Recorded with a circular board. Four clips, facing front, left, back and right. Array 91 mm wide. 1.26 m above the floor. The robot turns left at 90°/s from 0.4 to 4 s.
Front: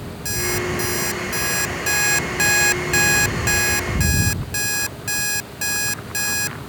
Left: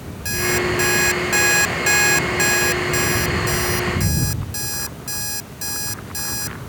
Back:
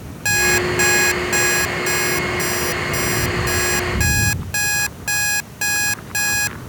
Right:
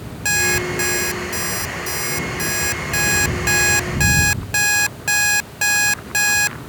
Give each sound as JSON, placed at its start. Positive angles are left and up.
{"t": 0.2, "sound": "an alarm clock", "azimuth_deg": -145}